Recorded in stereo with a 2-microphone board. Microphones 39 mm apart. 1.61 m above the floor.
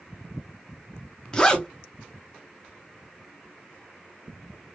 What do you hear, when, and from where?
1.3 s a zipper: 15° left (ahead or behind), 0.9 m